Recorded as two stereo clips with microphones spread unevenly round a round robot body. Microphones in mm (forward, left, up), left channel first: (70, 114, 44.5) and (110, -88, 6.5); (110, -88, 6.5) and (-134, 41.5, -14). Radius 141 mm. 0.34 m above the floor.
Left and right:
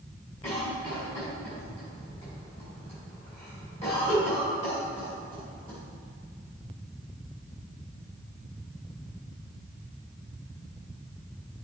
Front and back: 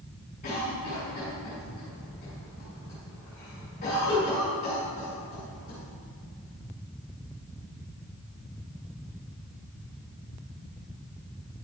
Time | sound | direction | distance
0.4 | a cough | 35° left | 2.5 m